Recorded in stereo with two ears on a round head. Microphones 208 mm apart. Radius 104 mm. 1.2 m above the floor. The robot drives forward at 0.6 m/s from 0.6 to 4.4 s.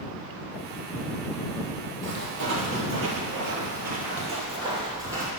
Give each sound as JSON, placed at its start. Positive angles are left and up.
{"t": 2.0, "sound": "footsteps", "side_deg": -50, "distance_m": 3.0}